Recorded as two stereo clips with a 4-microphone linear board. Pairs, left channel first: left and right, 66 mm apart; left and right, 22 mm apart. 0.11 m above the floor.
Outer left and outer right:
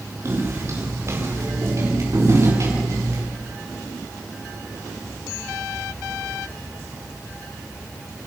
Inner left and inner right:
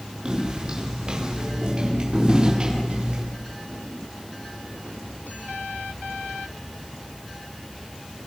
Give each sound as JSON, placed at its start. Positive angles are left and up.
{"t": 0.2, "sound": "footsteps", "side_deg": -45, "distance_m": 9.5}